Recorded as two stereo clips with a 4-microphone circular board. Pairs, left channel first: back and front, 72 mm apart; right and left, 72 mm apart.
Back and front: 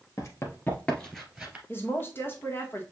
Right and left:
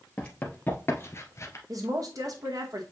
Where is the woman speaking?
125° left, 1.6 m.